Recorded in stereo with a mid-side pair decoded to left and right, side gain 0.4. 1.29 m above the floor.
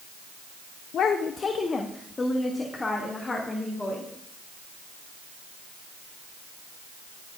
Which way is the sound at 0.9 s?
70° left.